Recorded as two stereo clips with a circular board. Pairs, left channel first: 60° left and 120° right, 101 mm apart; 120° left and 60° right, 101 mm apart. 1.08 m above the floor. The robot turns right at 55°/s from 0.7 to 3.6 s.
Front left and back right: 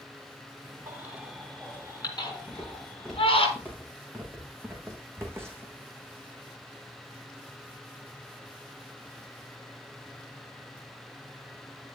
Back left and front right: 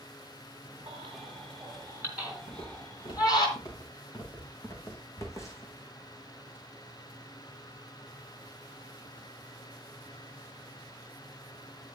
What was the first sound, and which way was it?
A baby crying, 60° right.